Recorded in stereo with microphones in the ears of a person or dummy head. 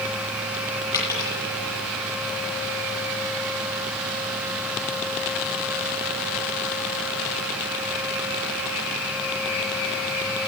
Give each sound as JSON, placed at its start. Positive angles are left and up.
{"t": 0.9, "sound": "a dropped coin", "side_deg": 20, "distance_m": 9.0}